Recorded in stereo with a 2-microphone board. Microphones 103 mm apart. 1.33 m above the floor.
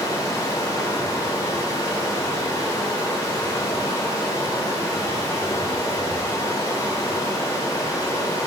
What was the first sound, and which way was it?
Running water, 35° left (ahead or behind).